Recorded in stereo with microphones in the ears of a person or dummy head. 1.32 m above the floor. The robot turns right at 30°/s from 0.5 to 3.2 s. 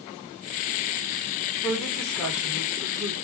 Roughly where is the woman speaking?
Behind.